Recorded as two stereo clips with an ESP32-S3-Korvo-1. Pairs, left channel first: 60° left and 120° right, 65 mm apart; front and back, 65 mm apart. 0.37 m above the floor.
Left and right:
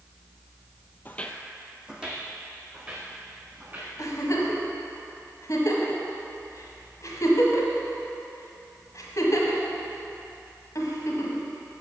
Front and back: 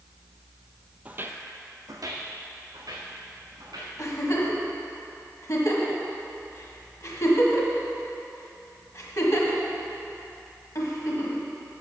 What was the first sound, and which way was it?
Footsteps, 115° left.